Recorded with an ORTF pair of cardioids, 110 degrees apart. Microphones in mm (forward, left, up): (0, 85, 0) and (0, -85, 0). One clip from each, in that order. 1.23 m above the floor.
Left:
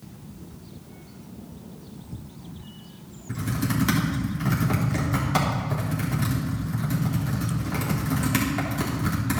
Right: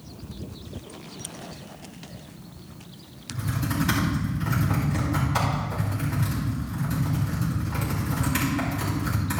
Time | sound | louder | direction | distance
3.3 | typing on a keyboard | left 2 dB | 65° left | 4 m